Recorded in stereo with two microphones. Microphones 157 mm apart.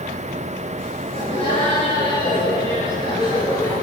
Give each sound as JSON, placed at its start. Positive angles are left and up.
{"t": 1.1, "sound": "laughter", "side_deg": 35, "distance_m": 8.0}